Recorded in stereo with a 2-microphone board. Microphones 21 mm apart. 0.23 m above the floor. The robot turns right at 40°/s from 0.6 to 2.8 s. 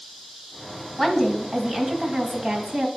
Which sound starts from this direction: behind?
A woman speaking, at 1.0 s.